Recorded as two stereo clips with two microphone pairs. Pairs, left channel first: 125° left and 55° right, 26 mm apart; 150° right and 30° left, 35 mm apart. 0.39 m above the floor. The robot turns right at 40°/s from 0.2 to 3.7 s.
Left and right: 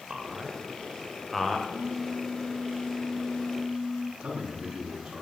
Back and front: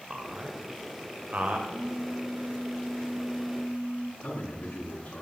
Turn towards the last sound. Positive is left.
turn(degrees=-110)